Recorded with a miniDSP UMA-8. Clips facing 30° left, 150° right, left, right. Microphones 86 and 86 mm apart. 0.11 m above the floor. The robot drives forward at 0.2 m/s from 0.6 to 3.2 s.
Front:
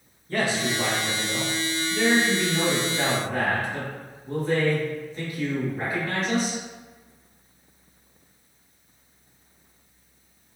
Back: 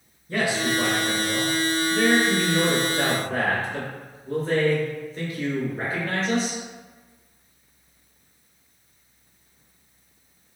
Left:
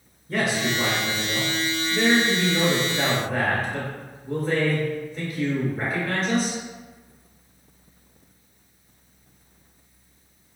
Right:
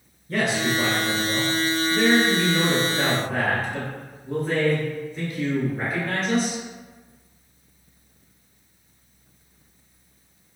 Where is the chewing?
No chewing in this recording.